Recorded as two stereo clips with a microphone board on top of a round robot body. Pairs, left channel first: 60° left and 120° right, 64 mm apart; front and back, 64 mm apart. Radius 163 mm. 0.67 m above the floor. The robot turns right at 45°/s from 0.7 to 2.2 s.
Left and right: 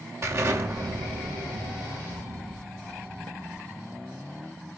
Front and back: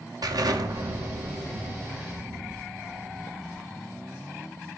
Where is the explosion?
165° right, 2.5 m; by 4.0 s 95° right, 2.5 m.